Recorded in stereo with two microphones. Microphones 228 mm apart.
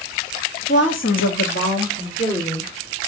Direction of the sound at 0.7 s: 50° left (ahead or behind).